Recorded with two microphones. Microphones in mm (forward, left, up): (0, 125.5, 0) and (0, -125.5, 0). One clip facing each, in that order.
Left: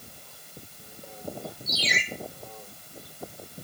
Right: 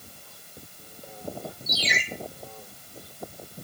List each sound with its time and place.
1.7 s a ringtone: 65° right (ahead or behind), 8.5 m